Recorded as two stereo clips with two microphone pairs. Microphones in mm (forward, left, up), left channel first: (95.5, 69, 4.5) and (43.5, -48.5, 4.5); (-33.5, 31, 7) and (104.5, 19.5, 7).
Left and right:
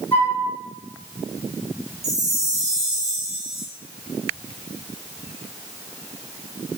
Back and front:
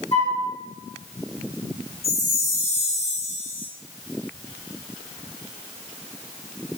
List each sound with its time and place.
0.1 s a flute: 140° left, 3.5 m
2.0 s a chime: 150° right, 1.8 m